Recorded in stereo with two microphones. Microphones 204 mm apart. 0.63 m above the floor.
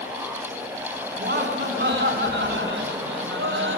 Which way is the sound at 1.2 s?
50° right (ahead or behind).